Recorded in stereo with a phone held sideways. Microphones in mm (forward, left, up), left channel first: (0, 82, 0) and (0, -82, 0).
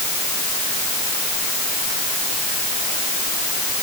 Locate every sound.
Only background noise.